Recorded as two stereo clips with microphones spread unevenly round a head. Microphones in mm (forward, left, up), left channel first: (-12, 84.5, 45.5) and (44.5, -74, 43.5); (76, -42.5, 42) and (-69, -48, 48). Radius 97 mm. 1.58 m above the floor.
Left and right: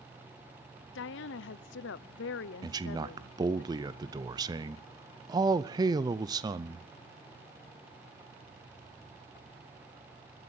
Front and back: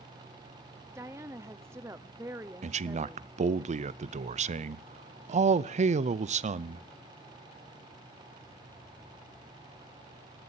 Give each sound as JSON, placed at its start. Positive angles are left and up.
{"t": 0.9, "sound": "a woman speaking", "azimuth_deg": 105, "distance_m": 0.5}
{"t": 2.6, "sound": "a man speaking", "azimuth_deg": -140, "distance_m": 0.5}